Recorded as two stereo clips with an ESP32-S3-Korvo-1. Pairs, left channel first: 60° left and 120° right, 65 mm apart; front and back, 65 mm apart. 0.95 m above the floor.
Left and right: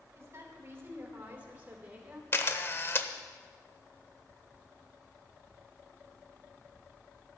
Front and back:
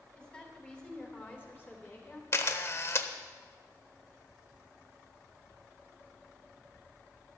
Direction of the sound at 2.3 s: 20° left.